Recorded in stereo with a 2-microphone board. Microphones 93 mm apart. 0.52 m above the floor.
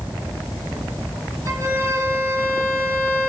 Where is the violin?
35° left (ahead or behind), 6.5 m.